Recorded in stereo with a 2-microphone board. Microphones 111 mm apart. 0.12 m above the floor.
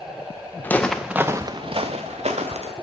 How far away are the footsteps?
About 0.8 m.